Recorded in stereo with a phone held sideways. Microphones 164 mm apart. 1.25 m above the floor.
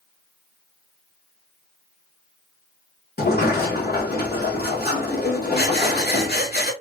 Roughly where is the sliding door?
Left.